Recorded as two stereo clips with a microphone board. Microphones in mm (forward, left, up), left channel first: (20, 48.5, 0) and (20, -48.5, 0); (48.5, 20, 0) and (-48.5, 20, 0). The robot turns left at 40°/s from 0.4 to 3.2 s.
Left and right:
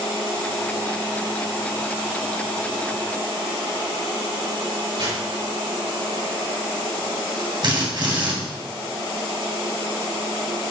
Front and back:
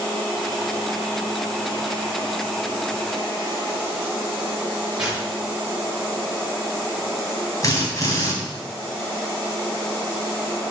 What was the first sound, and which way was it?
Tearing paper, 100° right.